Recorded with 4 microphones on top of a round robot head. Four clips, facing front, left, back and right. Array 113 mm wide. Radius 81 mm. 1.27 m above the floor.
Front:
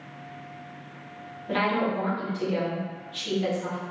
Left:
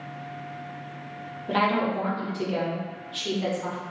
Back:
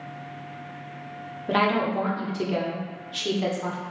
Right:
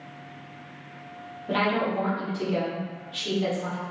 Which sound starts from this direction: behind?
A woman speaking, at 1.5 s.